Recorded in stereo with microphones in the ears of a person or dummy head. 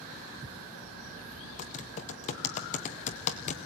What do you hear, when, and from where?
1.6 s typing on a keyboard: 40° left (ahead or behind), 1.5 m